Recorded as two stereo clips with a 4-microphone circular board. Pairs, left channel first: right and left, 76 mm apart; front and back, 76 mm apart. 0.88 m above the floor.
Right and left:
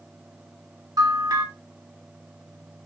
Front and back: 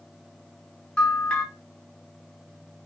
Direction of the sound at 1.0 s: 75° left.